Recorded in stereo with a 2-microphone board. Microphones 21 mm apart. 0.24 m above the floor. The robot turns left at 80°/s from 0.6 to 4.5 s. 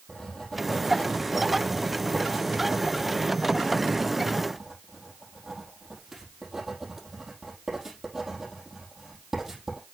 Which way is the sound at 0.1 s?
20° left (ahead or behind).